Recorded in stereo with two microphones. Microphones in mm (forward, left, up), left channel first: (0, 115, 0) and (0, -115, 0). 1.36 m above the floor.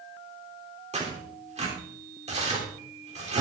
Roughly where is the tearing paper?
Right.